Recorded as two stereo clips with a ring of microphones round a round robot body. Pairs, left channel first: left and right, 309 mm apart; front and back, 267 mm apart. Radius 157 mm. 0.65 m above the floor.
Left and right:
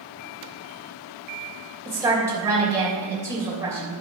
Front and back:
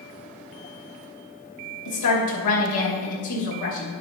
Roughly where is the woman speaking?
Ahead.